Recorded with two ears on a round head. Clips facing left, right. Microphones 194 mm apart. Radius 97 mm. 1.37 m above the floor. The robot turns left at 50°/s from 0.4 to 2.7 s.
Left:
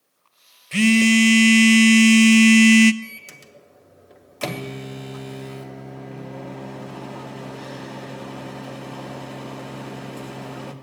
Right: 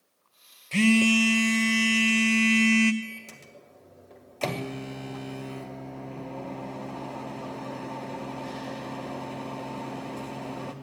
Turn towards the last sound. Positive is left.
turn(degrees=10)  # may be behind; listen again after turning